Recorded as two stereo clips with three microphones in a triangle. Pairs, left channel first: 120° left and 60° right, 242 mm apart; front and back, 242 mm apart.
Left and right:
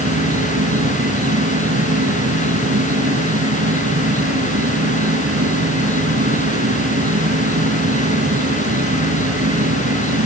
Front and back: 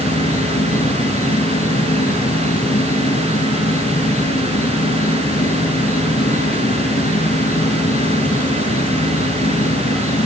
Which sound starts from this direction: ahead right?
An insect, at 0.0 s.